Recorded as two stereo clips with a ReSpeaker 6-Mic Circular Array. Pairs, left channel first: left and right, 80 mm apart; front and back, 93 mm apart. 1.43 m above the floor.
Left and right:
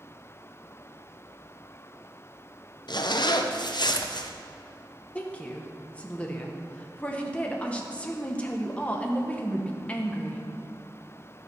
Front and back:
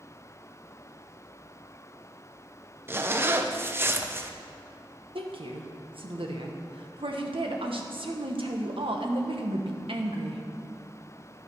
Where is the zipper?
115° left, 0.7 m.